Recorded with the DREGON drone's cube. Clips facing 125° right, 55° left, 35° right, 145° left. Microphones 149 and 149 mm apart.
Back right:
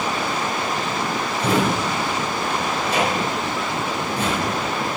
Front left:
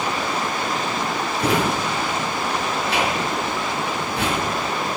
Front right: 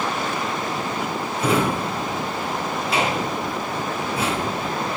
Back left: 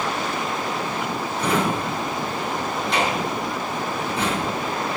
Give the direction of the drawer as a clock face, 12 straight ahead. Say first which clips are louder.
Back right 1 dB, front right 2 dB; 10 o'clock.